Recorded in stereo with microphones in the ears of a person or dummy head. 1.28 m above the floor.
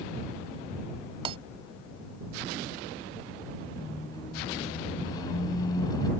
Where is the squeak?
25° left (ahead or behind).